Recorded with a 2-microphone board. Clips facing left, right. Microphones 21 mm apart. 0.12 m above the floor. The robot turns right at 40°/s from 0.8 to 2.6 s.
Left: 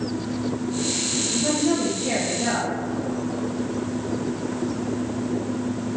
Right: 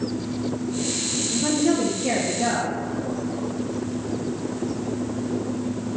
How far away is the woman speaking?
About 2.5 m.